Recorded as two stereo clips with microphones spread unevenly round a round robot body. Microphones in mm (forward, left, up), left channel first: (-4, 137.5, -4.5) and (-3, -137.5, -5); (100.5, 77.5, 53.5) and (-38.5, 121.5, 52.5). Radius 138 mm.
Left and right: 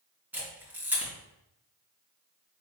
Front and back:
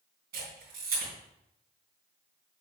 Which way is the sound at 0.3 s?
175° right.